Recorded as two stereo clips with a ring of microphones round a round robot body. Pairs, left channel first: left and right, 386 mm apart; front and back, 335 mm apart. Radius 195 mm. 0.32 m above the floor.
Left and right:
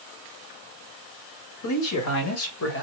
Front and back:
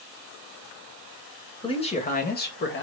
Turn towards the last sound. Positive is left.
turn(degrees=40)